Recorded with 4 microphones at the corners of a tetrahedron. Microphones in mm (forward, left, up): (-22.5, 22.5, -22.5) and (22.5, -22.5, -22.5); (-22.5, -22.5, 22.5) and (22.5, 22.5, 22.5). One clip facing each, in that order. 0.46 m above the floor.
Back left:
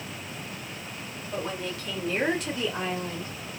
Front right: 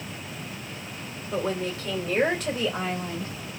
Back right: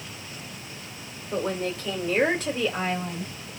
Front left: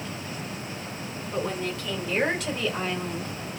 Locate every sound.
1.3 s a woman speaking: 100° right, 2.5 m; by 3.5 s 60° right, 1.5 m